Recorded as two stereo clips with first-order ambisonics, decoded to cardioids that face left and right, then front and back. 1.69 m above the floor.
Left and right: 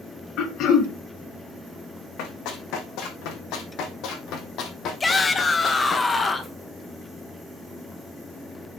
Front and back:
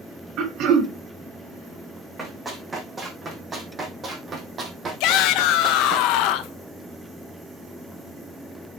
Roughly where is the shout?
Ahead.